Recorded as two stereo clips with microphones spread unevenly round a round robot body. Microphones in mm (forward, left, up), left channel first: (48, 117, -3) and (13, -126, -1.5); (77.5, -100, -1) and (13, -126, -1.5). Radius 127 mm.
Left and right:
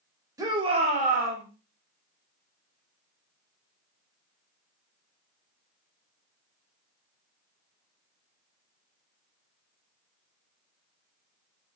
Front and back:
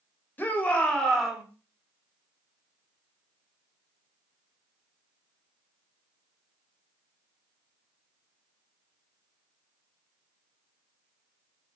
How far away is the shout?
About 1.2 m.